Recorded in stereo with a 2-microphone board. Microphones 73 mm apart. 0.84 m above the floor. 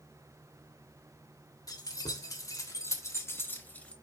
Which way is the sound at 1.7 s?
65° left (ahead or behind).